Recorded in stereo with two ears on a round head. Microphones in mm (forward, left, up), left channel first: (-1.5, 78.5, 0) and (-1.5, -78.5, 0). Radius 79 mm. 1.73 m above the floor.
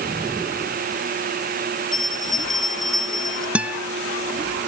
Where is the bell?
Centre (ahead or behind).